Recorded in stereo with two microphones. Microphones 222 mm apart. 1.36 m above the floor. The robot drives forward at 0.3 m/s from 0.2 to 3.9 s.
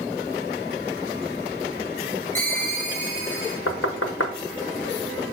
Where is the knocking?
80° left, 0.5 m; by 4.3 s 75° left (ahead or behind), 0.5 m.